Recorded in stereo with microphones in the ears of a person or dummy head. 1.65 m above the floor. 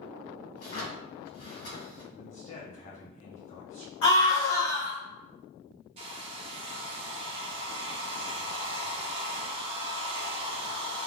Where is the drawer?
50° left (ahead or behind), 1.3 m.